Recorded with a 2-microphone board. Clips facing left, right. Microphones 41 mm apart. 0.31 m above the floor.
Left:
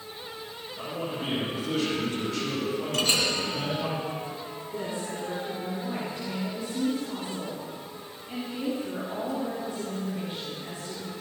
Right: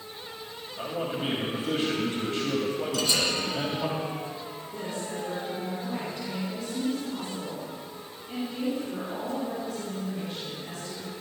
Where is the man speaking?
35° right (ahead or behind), 1.7 m.